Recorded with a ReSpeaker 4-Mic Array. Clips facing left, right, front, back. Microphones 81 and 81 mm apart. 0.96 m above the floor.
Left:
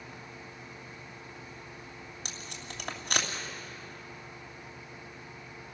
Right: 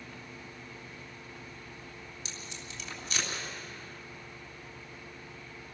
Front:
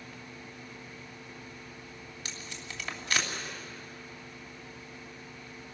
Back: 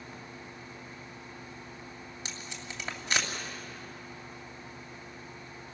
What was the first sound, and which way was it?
Tape being pulled, 110° left.